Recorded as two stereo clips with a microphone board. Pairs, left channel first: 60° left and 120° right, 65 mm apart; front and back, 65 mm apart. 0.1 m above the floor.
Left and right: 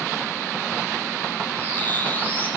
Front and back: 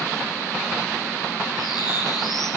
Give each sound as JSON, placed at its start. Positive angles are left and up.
{"t": 1.6, "sound": "a bird", "azimuth_deg": -5, "distance_m": 1.3}